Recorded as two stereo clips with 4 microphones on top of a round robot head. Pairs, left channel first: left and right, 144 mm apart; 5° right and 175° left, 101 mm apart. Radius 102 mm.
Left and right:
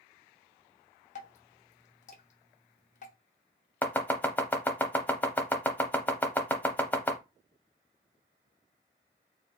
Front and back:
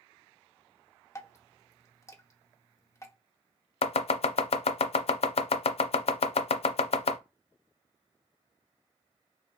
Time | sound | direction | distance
1.1 | dripping | 55° left | 1.2 m
3.8 | chopping | 10° left | 0.5 m